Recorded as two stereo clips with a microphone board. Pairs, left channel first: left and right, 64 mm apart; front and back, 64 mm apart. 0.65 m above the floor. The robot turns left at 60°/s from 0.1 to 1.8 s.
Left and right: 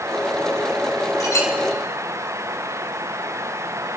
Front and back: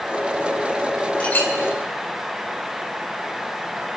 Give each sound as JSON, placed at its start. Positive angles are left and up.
{"t": 1.2, "sound": "a clink", "azimuth_deg": 70, "distance_m": 1.6}